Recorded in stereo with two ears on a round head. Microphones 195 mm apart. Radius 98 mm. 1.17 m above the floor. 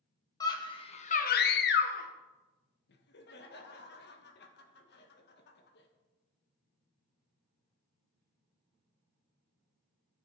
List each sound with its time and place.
0.4 s a scream: 15° left (ahead or behind), 1.8 m; by 2.1 s 40° left (ahead or behind), 1.1 m
2.9 s laughter: 50° left (ahead or behind), 1.5 m